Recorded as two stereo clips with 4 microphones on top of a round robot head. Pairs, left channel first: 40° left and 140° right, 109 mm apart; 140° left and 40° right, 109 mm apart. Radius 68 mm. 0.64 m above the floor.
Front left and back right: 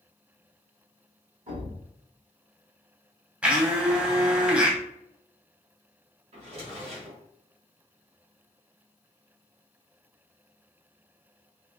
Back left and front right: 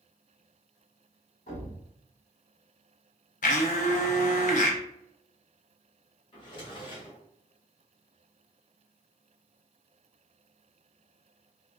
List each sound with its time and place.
1.5 s a thud: 175° left, 1.9 m
3.4 s a blender: 140° left, 0.6 m
6.3 s a drawer: 175° right, 1.9 m